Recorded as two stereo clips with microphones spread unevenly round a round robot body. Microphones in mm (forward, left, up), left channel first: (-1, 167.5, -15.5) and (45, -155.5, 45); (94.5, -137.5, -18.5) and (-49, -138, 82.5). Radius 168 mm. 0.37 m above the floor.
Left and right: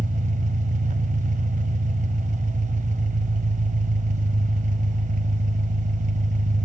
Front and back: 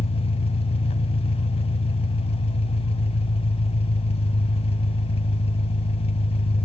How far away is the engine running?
About 1.5 m.